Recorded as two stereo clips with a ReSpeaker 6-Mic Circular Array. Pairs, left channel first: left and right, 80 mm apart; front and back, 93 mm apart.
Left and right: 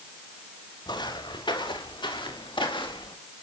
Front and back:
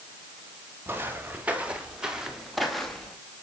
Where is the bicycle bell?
No bicycle bell in this recording.